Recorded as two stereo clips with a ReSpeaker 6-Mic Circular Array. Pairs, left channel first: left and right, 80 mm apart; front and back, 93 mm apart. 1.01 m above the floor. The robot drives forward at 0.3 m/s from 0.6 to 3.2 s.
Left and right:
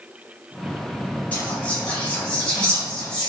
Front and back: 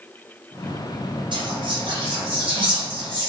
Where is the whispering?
160° left, 1.2 m; by 3.3 s 170° left, 1.7 m.